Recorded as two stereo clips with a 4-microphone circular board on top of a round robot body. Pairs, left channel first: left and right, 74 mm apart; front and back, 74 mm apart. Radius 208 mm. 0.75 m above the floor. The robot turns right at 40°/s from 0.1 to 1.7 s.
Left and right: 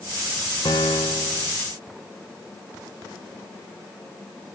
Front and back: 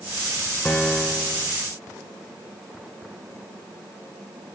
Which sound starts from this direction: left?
A piano, at 0.7 s.